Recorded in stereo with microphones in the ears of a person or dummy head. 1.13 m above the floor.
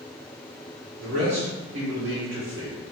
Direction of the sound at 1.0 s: 50° right (ahead or behind).